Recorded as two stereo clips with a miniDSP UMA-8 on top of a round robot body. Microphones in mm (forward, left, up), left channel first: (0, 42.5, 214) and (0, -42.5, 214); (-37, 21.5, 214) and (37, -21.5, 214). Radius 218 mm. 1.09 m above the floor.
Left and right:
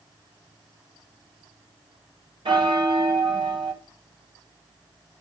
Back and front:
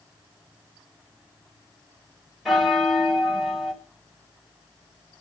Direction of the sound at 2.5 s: 120° right.